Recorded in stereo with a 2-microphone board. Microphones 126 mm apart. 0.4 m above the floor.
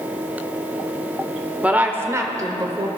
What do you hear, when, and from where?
1.6 s a woman speaking: 10° right (ahead or behind), 0.9 m; by 2.9 s 35° right (ahead or behind), 1.3 m